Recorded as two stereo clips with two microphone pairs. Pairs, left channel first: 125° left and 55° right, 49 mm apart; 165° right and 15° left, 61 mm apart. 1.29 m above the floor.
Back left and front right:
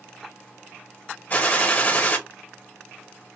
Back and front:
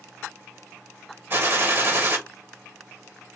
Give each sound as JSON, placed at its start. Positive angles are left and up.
{"t": 1.3, "sound": "a gunshot", "azimuth_deg": 65, "distance_m": 1.2}